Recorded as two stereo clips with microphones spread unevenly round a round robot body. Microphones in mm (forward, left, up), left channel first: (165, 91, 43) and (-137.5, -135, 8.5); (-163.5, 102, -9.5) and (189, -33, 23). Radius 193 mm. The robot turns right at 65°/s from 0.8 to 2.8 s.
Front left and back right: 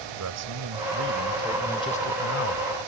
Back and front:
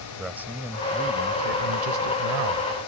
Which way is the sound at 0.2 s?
110° right.